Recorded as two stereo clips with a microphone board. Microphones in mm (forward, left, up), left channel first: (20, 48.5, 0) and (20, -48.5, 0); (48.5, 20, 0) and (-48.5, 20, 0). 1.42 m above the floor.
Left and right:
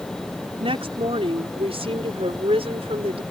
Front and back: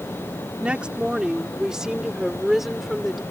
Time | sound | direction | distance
0.6 | a woman speaking | 100° right | ?